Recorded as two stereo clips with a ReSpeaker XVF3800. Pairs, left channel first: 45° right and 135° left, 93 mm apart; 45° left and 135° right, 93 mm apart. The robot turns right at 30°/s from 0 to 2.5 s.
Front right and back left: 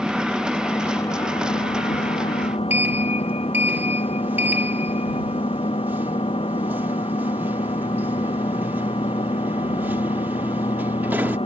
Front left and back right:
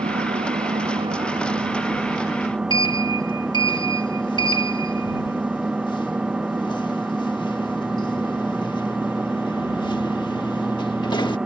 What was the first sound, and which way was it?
An engine running, 130° right.